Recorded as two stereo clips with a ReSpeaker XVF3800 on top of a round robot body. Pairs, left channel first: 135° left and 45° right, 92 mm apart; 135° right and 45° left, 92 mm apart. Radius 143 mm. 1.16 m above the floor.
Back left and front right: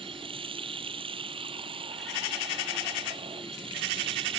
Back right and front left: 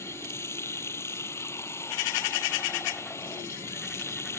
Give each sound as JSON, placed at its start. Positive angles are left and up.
{"t": 0.0, "sound": "running water", "azimuth_deg": -70}